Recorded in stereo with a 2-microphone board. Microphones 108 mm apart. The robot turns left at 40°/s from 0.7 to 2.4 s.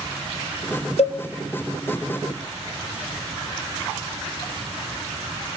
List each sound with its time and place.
1.0 s a cowbell: 70° left (ahead or behind), 0.8 m; by 1.2 s 65° left (ahead or behind), 0.8 m